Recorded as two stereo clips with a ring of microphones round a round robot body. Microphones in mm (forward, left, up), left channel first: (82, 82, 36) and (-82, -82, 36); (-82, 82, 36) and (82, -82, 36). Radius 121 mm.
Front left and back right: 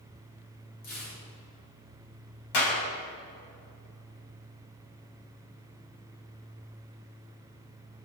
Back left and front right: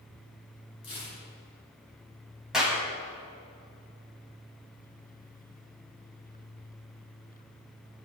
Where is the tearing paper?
65° left, 7 m.